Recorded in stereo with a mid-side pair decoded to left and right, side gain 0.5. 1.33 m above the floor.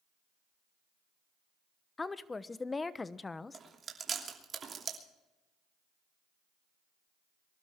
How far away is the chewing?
About 3 m.